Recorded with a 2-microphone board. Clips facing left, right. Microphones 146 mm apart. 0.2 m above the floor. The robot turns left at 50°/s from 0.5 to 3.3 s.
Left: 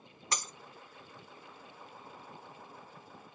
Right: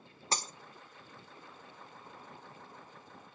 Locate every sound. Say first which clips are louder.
0.3 s breaking glass: right 2 dB; 30° right (ahead or behind), 0.7 m; by 0.5 s 35° right (ahead or behind), 0.7 m